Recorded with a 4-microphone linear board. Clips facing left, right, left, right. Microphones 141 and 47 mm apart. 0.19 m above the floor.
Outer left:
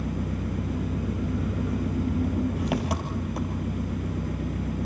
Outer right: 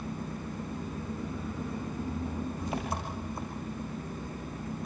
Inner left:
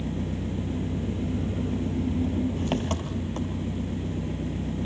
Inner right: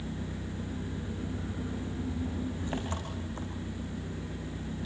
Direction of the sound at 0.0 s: 75° left (ahead or behind).